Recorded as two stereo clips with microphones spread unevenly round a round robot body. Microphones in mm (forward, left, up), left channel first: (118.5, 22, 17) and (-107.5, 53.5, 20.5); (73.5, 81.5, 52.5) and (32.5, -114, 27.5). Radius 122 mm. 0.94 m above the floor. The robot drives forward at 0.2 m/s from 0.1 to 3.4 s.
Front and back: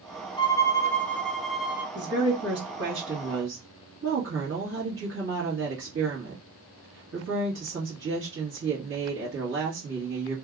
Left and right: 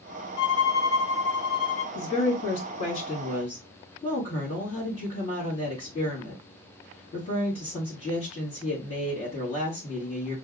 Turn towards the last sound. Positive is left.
turn(degrees=145)